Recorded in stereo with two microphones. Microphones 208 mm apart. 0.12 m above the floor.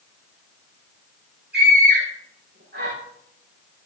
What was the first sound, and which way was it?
A scream, 55° right (ahead or behind).